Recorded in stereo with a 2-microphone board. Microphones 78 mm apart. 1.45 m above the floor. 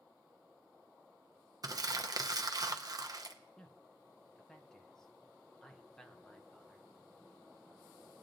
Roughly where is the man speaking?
Centre.